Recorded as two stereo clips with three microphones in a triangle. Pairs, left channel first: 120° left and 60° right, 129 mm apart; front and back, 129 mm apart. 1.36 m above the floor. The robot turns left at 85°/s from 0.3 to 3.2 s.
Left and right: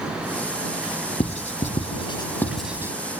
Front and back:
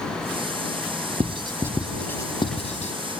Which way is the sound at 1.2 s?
150° left.